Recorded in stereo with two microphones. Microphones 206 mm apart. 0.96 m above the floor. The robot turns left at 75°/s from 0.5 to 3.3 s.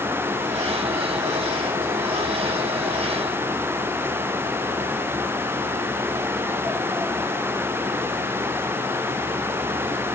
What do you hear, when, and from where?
Only background noise.